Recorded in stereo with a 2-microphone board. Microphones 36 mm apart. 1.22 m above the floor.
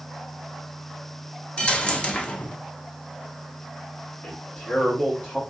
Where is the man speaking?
85° left, 1.9 m.